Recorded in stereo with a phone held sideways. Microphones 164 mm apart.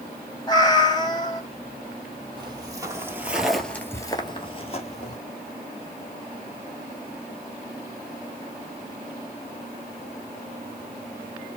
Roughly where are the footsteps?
Right.